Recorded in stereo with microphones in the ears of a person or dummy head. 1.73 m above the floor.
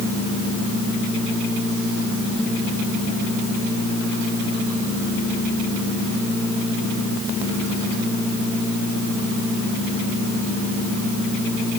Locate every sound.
Only background noise.